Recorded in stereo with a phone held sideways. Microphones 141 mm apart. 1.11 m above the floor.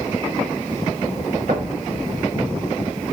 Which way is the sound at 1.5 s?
80° right.